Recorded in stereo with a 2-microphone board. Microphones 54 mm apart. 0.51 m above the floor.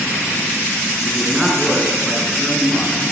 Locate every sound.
1.1 s a man speaking: 10° left (ahead or behind), 6 m